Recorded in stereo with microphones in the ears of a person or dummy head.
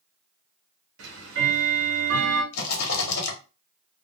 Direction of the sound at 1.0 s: 60° right (ahead or behind).